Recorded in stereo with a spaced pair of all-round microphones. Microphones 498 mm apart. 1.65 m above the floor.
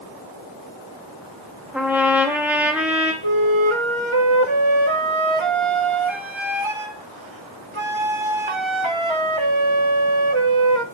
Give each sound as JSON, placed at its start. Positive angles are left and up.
{"t": 1.7, "sound": "a trumpet", "side_deg": -5, "distance_m": 2.5}
{"t": 3.2, "sound": "a flute", "side_deg": -70, "distance_m": 1.6}